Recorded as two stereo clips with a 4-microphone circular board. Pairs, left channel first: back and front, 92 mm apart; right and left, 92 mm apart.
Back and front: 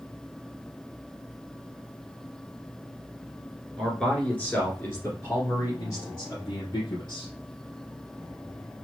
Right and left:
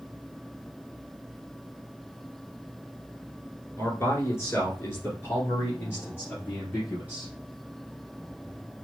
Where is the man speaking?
100° right, 1.7 m; by 7.3 s 155° right, 3 m.